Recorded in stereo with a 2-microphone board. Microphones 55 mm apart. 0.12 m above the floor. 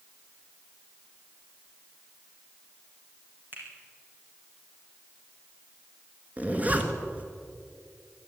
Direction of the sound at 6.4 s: 25° right (ahead or behind).